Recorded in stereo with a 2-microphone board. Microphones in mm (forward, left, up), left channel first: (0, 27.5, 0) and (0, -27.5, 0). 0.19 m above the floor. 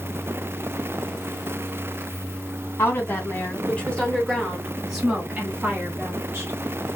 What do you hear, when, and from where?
2.8 s a woman speaking: 40° left (ahead or behind), 1.6 m; by 6.5 s 35° right (ahead or behind), 1.7 m